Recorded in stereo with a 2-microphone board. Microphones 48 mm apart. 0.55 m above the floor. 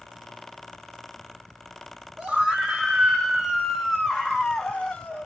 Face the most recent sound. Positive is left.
turn(degrees=25)  # may be behind; listen again after turning